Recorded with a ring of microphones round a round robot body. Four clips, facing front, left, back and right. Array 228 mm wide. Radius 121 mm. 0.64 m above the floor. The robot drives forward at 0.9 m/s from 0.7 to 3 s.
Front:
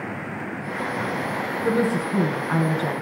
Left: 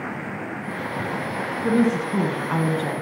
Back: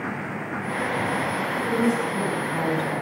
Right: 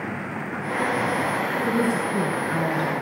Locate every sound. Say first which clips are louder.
1.6 s a woman speaking: left 5 dB, front 2 dB; 50° left, 6.5 m; by 3.0 s 55° left, 6 m